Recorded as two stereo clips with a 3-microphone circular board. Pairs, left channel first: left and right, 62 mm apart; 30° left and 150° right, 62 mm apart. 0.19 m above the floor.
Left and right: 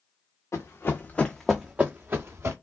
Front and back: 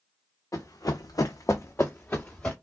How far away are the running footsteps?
About 0.7 m.